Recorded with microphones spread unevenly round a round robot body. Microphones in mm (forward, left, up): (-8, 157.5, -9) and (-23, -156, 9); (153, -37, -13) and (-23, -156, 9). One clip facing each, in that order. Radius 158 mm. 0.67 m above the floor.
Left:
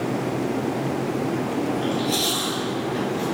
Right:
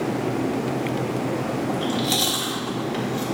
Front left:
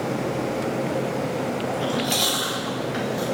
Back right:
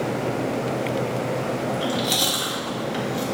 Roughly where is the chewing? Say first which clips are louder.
Left 1 dB, even; right.